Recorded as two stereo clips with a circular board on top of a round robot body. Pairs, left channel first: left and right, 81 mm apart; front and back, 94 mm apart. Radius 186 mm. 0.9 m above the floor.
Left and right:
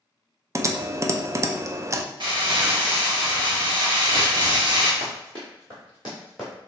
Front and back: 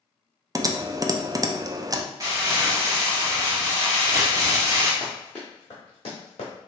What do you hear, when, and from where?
0.6 s typing on a keyboard: 135° right, 0.5 m
2.2 s crumpling: 125° right, 1.0 m
5.0 s running footsteps: 110° right, 1.0 m; by 6.5 s straight ahead, 1.1 m